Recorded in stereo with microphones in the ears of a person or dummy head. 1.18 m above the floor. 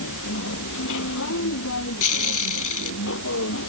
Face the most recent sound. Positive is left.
turn(degrees=65)  # may be behind; listen again after turning